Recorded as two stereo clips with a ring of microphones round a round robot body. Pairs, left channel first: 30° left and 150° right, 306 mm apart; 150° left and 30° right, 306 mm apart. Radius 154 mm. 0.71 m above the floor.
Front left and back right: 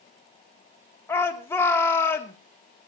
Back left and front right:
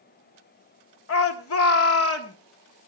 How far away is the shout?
About 2 m.